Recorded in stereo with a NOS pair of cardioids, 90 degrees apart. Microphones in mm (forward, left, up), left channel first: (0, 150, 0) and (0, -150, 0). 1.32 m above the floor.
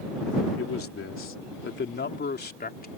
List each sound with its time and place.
0.6 s a man speaking: 50° left; by 2.9 s 30° left